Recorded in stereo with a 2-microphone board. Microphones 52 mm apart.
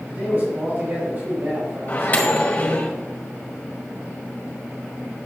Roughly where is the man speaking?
Right.